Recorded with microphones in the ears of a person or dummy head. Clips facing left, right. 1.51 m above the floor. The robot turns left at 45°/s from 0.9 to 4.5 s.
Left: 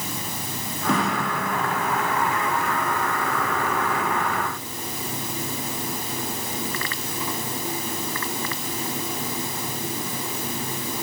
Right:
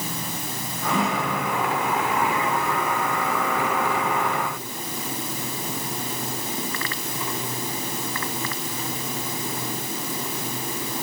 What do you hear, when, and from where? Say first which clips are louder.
0.9 s a snare drum: left 1 dB; 40° left (ahead or behind), 4.5 m; by 1.2 s 55° left (ahead or behind), 4.5 m